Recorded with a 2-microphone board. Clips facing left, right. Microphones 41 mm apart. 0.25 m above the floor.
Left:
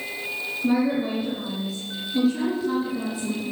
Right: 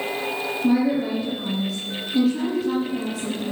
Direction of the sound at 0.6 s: 5° right (ahead or behind).